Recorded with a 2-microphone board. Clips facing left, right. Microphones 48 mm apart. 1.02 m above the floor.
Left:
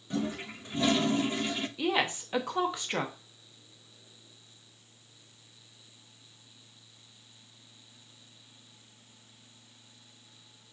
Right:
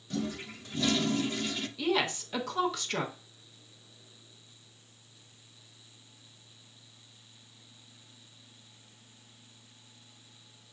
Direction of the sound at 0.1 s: 20° left (ahead or behind).